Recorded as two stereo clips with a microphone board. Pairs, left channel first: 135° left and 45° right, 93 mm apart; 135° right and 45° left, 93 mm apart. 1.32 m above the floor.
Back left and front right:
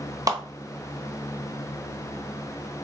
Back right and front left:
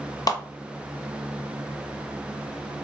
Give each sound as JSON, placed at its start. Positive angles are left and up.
{"t": 0.3, "sound": "a clap", "azimuth_deg": -90, "distance_m": 0.8}